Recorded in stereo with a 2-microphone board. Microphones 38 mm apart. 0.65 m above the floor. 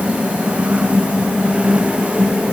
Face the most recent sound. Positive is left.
No sound to turn to.